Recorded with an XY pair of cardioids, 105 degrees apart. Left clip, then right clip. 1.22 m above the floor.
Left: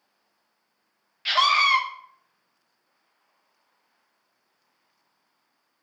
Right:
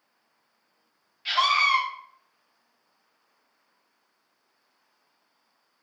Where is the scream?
50° left, 1.1 m.